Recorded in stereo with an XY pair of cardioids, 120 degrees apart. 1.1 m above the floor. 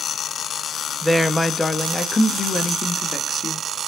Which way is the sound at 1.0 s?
5° left.